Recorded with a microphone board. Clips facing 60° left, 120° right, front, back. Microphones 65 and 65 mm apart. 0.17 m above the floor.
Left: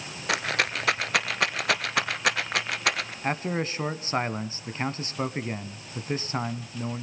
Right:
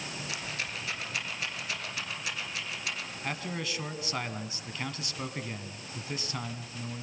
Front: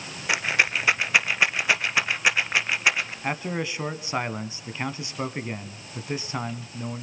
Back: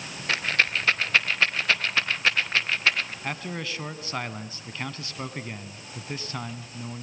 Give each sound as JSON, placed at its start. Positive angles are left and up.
{"t": 0.3, "sound": "a rattle", "azimuth_deg": 75, "distance_m": 1.1}
{"t": 3.2, "sound": "a man speaking", "azimuth_deg": 60, "distance_m": 1.1}